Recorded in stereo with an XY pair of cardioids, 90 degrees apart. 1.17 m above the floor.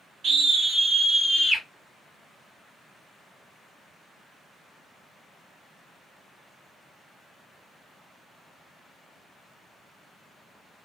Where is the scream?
65° right, 0.8 m; by 1.6 s 25° left, 1.5 m.